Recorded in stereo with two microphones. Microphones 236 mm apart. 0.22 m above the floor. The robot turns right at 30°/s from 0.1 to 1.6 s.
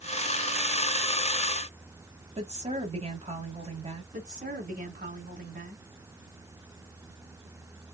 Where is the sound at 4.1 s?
35° right (ahead or behind), 2 m.